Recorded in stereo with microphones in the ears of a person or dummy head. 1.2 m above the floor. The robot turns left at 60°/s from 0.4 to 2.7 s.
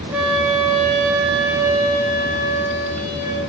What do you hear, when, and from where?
0.1 s a flute: 10° right, 2.5 m; by 3.4 s 145° right, 2.5 m